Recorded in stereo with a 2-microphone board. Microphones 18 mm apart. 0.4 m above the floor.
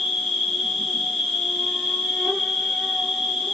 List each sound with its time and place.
0.0 s an insect: 5° left (ahead or behind), 7.5 m